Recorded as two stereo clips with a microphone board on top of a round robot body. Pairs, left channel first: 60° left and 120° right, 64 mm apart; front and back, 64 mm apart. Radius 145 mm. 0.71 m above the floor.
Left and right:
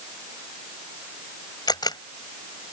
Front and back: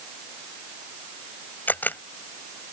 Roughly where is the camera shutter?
Ahead left.